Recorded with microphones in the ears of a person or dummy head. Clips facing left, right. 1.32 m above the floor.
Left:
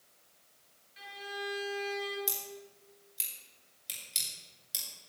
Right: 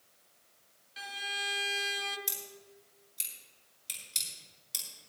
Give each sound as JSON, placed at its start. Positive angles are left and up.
{"t": 1.0, "sound": "a violin", "side_deg": -55, "distance_m": 0.8}
{"t": 2.3, "sound": "scissors", "side_deg": 5, "distance_m": 5.5}